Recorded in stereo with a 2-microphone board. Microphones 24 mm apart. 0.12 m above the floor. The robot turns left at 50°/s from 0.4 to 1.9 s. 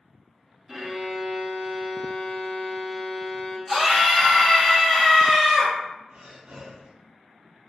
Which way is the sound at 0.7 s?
145° right.